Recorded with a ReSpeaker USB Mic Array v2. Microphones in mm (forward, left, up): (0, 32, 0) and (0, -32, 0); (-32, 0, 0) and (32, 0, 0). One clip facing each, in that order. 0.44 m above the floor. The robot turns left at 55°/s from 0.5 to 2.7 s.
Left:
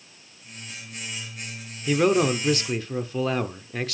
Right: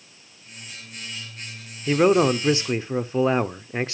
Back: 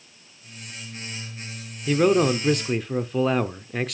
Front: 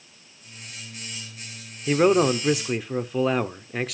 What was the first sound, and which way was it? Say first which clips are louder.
A man speaking: right 3 dB, even; 40° right.